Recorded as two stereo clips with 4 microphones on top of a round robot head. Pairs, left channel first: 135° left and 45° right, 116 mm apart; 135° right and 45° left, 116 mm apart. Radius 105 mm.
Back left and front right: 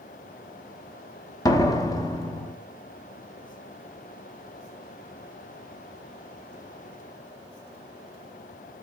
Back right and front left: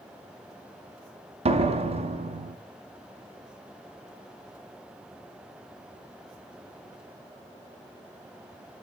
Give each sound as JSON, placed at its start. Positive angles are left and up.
{"t": 1.4, "sound": "a door slam", "azimuth_deg": 75, "distance_m": 1.2}